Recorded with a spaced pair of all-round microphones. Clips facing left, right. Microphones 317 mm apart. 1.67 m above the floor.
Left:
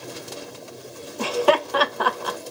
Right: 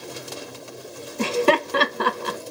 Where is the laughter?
30° right (ahead or behind), 0.7 m.